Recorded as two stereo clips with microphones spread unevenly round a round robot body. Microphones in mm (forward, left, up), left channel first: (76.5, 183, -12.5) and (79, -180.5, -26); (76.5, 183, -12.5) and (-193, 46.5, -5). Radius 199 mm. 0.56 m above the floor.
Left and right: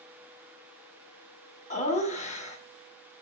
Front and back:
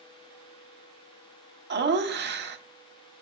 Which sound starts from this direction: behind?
Laughter, at 1.7 s.